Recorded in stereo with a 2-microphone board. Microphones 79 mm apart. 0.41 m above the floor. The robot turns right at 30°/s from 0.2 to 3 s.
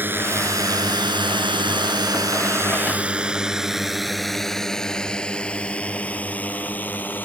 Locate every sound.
0.0 s a drone: 25° right (ahead or behind); by 7.3 s 25° left (ahead or behind)